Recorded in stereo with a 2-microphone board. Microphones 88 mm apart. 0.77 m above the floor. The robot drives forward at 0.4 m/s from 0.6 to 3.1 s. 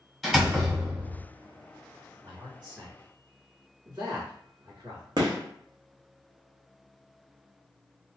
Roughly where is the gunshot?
Right.